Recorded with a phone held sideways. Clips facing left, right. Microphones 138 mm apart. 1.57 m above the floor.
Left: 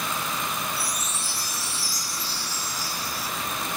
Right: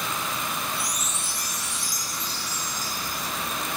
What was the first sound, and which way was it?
A chime, 35° left (ahead or behind).